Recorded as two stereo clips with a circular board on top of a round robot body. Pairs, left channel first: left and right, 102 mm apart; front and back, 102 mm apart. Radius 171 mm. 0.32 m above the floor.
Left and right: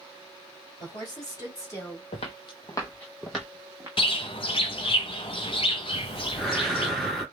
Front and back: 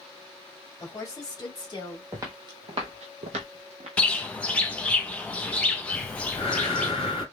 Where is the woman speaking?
55° left, 2.5 m; by 2.0 s 30° left, 2 m.